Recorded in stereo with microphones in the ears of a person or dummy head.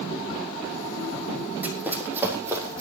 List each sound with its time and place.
1.6 s running footsteps: 5° right (ahead or behind), 4 m; by 2.8 s 15° right (ahead or behind), 5 m